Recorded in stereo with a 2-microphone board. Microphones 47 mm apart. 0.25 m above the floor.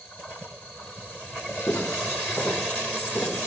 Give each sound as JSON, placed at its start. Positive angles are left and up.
{"t": 1.7, "sound": "footsteps", "side_deg": 50, "distance_m": 2.5}